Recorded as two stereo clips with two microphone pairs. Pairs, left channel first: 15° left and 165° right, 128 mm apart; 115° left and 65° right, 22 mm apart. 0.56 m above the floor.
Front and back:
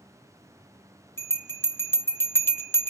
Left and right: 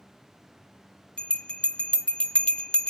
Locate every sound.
1.2 s a bell: 85° left, 0.6 m